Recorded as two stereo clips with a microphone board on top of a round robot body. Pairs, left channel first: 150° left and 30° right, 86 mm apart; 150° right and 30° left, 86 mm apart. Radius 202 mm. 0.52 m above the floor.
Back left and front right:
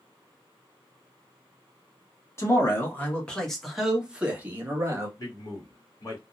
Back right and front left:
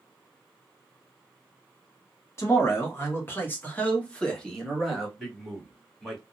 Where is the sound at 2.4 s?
Straight behind, 1.5 m; by 5.1 s 60° right, 1.5 m.